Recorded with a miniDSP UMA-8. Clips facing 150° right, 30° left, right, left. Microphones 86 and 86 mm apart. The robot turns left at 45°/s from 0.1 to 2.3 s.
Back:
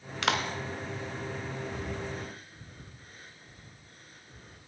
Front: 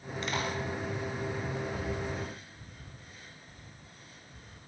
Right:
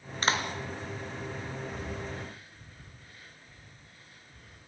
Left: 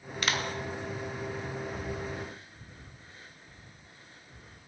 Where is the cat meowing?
I don't hear a cat meowing.